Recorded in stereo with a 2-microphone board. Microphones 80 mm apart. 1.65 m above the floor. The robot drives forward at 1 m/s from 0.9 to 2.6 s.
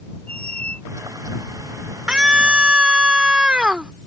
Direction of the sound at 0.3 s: 15° left (ahead or behind).